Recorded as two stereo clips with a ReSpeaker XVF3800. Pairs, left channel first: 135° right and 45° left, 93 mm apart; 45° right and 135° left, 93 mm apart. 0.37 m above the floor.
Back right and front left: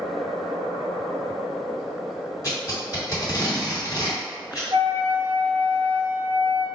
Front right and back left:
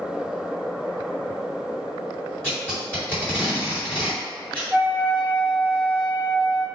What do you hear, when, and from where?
2.4 s tape being pulled: 115° right, 1.8 m
4.7 s a flute: 70° left, 0.6 m